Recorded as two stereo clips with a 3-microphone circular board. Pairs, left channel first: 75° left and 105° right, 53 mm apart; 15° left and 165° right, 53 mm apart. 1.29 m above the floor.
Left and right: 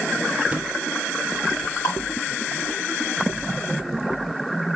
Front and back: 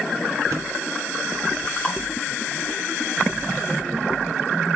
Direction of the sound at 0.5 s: 170° right.